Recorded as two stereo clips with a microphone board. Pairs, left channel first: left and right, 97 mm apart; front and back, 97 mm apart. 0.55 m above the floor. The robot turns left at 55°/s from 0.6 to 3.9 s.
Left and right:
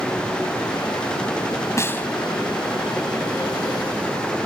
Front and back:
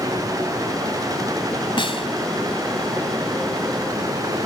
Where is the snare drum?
30° left; by 2.1 s 15° left.